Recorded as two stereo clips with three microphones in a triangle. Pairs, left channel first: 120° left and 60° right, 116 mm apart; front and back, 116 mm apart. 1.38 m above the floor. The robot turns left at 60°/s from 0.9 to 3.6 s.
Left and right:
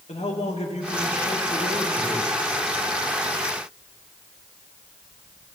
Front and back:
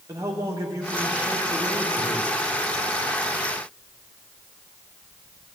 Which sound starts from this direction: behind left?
A man speaking, at 0.1 s.